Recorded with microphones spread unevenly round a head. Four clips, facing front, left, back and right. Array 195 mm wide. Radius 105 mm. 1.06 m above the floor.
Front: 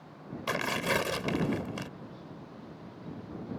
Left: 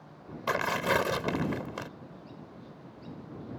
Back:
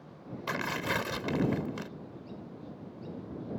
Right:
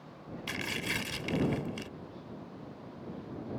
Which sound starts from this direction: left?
Tearing paper, at 0.5 s.